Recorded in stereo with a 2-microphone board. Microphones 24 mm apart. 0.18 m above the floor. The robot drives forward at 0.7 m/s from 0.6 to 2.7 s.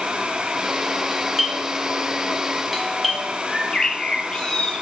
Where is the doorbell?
5° left (ahead or behind), 1.7 m.